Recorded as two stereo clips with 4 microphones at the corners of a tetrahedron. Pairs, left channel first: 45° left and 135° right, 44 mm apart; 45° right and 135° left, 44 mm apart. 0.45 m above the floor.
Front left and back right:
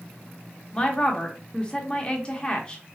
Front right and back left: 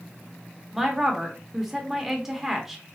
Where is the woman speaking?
65° left, 0.8 m.